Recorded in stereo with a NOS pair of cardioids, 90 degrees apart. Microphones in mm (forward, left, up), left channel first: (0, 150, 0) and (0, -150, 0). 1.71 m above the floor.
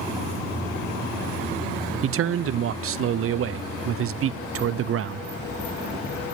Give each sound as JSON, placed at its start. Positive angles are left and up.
{"t": 2.0, "sound": "a man speaking", "azimuth_deg": -50, "distance_m": 0.6}